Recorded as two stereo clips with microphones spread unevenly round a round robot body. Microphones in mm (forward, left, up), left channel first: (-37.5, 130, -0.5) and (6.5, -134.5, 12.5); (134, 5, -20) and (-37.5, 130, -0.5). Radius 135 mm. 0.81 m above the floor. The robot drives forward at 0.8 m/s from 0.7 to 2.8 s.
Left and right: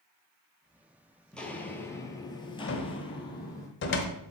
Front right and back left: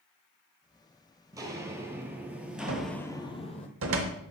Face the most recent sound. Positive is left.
turn(degrees=150)